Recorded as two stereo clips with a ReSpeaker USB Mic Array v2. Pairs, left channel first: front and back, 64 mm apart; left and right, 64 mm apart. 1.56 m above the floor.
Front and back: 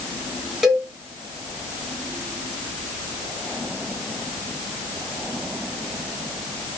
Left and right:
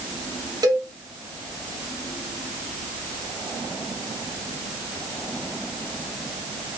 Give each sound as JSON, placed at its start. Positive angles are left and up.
{"t": 0.6, "sound": "a cowbell", "azimuth_deg": -95, "distance_m": 1.6}